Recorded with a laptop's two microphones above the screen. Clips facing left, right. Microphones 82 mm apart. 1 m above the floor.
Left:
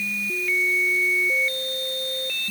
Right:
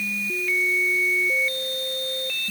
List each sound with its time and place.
Only background noise.